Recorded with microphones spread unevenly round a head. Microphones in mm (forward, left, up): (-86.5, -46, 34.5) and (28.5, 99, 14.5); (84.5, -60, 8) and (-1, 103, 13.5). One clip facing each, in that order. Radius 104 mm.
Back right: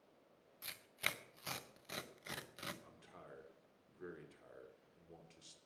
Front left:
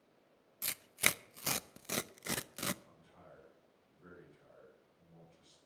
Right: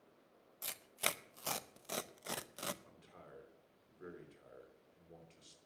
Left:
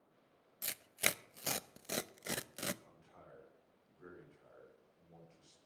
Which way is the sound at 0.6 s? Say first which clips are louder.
Front left 9 dB, left 1 dB; 50° left.